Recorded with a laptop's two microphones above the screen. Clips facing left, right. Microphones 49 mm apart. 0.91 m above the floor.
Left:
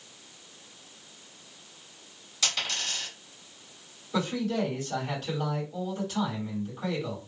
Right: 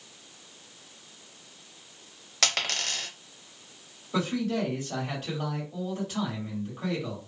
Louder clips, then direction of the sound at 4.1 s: Even; 20° right (ahead or behind).